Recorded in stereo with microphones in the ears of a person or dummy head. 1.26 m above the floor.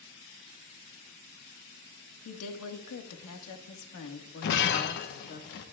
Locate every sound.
2.2 s a woman speaking: 75° left (ahead or behind), 1.7 m; by 5.4 s 35° left (ahead or behind), 2.5 m
4.4 s breaking glass: 50° left (ahead or behind), 1.2 m